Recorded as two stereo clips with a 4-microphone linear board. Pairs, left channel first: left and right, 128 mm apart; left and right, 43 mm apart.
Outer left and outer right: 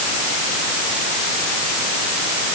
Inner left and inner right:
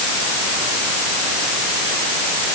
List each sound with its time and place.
Only background noise.